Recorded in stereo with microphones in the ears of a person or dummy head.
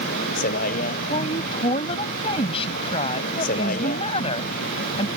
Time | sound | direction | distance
0.0 | a vehicle | 50° left (ahead or behind) | ?
1.1 | a woman speaking | 35° left (ahead or behind) | ?